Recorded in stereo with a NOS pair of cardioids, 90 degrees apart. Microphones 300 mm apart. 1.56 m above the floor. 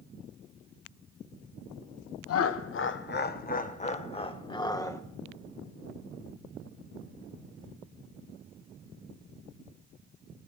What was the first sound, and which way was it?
Laughter, 55° left.